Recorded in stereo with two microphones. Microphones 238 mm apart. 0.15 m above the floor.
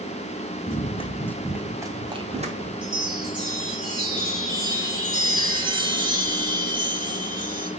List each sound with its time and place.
0.7 s running footsteps: 40° left (ahead or behind), 1.4 m; by 2.7 s 35° right (ahead or behind), 2.5 m
2.8 s a chime: 20° right (ahead or behind), 4 m